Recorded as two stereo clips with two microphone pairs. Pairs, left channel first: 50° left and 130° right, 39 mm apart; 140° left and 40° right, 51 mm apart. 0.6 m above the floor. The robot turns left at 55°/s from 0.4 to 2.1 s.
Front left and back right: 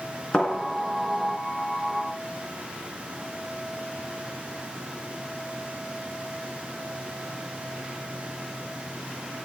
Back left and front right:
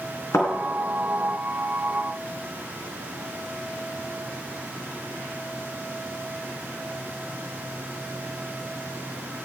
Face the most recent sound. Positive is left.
turn(degrees=25)